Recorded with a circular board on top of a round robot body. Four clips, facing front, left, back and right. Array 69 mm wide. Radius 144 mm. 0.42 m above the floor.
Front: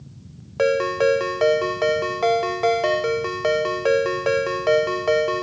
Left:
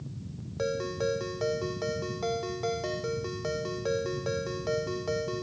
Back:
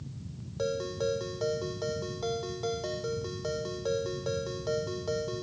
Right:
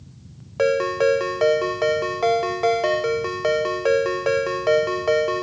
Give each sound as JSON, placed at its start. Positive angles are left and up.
{"t": 0.6, "sound": "a ringtone", "azimuth_deg": -35}